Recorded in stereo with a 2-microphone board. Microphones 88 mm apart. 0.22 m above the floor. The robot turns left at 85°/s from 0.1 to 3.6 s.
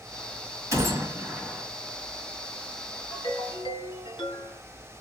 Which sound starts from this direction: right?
A gunshot, at 0.7 s.